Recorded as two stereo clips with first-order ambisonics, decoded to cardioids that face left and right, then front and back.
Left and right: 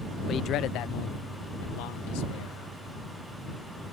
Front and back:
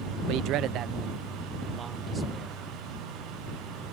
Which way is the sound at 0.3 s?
150° left.